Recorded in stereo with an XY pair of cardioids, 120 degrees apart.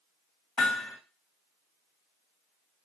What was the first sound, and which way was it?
Hammering, 40° left.